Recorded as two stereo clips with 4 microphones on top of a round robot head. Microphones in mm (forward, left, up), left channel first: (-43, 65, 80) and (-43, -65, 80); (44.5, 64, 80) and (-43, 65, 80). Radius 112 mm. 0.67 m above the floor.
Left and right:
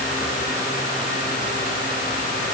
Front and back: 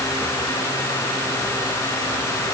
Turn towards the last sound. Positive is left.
No sound to turn to.